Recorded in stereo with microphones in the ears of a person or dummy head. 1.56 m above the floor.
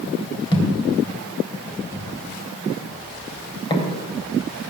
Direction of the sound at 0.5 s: 25° left (ahead or behind).